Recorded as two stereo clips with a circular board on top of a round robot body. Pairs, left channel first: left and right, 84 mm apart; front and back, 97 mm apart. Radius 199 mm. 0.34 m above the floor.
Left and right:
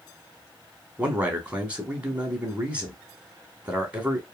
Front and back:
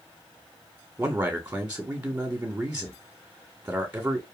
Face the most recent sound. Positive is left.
turn(degrees=-140)